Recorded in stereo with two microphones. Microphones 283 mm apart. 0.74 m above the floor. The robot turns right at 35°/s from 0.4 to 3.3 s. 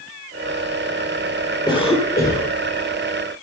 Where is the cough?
15° left (ahead or behind), 2.5 m; by 2.5 s 40° left (ahead or behind), 2.5 m.